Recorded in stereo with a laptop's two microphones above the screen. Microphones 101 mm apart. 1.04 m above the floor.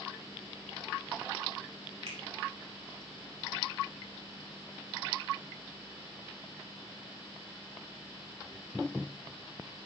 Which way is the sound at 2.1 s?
75° right (ahead or behind).